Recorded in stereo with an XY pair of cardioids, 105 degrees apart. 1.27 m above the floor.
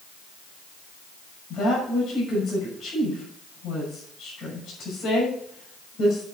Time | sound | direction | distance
1.5 | a woman speaking | 60° left | 6 m